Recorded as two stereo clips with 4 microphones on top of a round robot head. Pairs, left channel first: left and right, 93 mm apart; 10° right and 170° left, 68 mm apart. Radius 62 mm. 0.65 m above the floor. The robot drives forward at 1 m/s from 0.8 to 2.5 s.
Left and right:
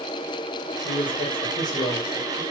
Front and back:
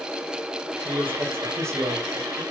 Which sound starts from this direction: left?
A man speaking, at 0.8 s.